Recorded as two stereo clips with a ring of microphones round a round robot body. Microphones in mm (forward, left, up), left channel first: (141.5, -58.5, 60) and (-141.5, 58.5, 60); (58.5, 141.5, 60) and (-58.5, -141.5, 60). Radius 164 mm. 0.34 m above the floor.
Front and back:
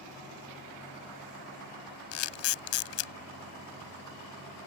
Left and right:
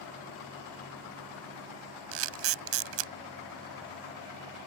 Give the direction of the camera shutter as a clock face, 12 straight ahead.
2 o'clock.